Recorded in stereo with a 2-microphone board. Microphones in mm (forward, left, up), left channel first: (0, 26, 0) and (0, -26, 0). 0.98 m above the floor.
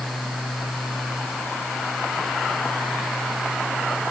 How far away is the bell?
No bell in this recording.